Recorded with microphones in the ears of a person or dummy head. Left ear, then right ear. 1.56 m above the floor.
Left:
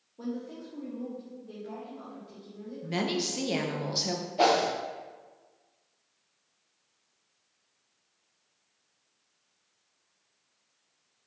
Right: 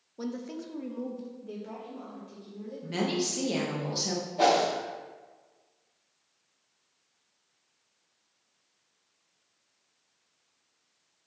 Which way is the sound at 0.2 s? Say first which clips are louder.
Right 1 dB; 75° right (ahead or behind).